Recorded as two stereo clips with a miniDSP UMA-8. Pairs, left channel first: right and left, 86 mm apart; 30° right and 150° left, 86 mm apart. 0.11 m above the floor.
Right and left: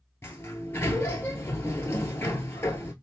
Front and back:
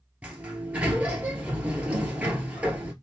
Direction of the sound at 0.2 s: 145° right.